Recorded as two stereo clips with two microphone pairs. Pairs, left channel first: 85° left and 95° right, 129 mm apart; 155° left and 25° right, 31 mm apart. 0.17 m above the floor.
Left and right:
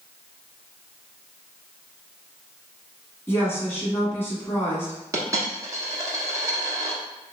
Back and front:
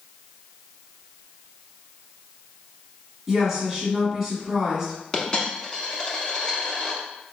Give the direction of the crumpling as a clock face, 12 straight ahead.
I don't hear crumpling.